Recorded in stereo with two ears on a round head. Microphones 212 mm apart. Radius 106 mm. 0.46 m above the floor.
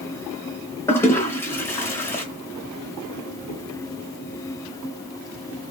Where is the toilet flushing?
10° left (ahead or behind), 0.7 m.